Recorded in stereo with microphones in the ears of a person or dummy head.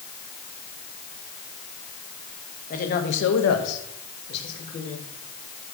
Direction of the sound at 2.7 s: 40° left (ahead or behind).